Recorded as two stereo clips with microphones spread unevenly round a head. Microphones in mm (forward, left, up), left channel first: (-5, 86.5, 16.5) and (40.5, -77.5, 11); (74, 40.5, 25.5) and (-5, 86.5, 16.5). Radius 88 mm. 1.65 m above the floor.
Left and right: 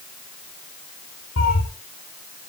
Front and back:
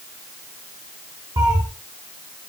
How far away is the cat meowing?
About 7 m.